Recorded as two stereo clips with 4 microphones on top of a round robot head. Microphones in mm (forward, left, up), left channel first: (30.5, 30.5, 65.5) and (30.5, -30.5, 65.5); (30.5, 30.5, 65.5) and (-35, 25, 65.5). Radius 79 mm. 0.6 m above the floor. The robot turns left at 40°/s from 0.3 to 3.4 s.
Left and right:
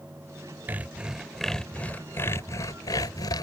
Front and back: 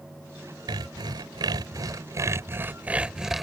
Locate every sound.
0.7 s sawing: 155° right; by 3.4 s 100° left